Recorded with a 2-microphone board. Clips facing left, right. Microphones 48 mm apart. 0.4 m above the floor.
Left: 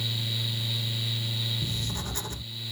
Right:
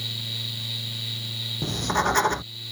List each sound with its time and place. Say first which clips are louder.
1.6 s writing: right 11 dB; 70° right (ahead or behind)